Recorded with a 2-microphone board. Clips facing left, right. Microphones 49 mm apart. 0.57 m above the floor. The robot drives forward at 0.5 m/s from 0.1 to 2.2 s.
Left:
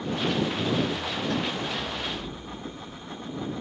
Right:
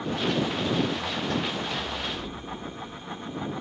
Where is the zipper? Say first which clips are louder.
Left 1 dB; 20° right (ahead or behind), 10 m.